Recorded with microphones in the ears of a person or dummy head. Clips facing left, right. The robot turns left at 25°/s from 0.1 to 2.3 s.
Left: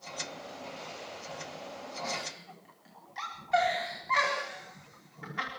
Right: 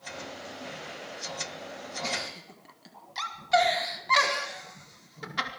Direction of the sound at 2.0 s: 50° right (ahead or behind).